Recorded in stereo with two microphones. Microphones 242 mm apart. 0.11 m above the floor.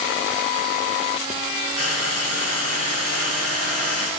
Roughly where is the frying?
Right.